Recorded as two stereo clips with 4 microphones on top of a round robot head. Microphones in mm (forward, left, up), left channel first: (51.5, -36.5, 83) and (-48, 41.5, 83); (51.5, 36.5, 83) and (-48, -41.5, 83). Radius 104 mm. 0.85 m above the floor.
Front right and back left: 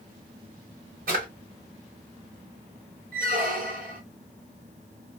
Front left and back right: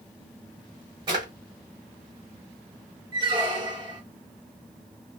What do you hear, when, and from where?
1.1 s a drawer: 160° left, 1.4 m
3.1 s a squeak: 160° left, 1.1 m